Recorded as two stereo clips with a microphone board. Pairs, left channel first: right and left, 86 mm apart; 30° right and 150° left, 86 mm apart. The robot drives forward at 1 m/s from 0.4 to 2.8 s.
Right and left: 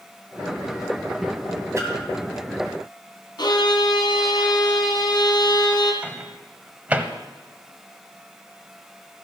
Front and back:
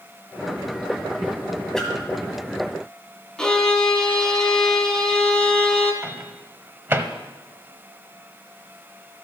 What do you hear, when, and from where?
1.8 s a splash: 50° left, 2.0 m; by 1.9 s 55° left, 1.9 m
3.4 s a violin: 115° right, 2 m
6.0 s a microwave: 135° left, 0.8 m